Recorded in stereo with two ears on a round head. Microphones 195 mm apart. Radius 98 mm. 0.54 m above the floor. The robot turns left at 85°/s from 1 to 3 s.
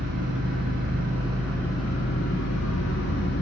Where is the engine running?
135° right, 2.5 m; by 3.4 s 55° left, 2.5 m.